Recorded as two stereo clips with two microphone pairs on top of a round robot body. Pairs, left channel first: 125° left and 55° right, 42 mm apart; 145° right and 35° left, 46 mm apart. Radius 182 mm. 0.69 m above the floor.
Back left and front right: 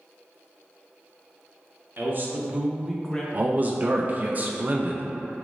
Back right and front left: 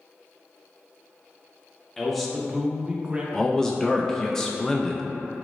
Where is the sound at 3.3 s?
75° right, 0.5 m.